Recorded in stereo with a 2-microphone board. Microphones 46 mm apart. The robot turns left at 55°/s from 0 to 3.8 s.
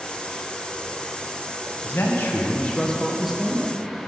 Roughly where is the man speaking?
Left.